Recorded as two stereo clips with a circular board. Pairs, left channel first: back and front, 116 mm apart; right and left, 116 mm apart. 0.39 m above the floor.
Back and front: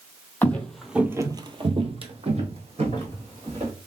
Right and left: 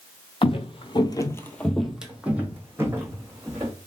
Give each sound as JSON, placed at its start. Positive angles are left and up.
{"t": 0.4, "sound": "footsteps", "azimuth_deg": -110, "distance_m": 0.7}